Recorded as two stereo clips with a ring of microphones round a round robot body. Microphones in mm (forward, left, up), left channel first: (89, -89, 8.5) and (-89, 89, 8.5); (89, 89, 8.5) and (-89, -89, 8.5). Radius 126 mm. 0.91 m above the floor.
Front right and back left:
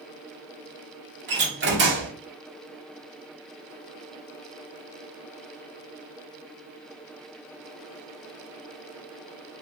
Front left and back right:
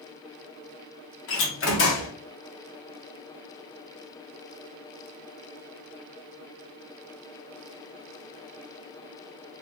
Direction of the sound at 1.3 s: 85° left.